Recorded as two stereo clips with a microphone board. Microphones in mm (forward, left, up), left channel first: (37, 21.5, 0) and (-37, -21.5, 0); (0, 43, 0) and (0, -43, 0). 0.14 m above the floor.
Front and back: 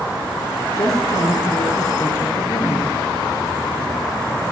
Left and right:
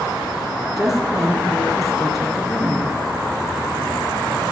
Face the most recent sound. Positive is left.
turn(degrees=-5)